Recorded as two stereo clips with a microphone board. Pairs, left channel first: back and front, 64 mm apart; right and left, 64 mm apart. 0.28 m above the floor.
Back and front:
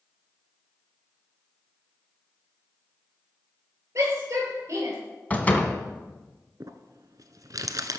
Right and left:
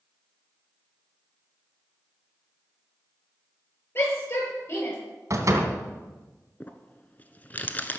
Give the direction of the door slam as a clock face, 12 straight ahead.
8 o'clock.